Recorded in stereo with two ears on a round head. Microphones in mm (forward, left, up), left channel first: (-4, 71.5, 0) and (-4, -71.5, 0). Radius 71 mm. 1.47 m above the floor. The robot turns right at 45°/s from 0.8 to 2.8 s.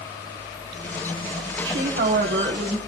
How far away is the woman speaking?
About 1.5 m.